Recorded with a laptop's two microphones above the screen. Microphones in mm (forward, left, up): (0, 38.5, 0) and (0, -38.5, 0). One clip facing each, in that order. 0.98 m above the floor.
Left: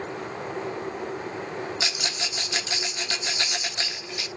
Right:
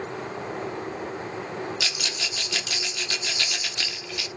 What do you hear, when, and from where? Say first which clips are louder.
1.8 s a rattle: left 1 dB; 25° left (ahead or behind), 0.8 m